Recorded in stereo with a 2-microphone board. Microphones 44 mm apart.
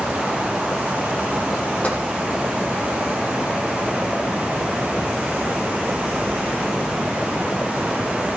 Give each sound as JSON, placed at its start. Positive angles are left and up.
{"t": 1.8, "sound": "tapping", "side_deg": 30, "distance_m": 6.0}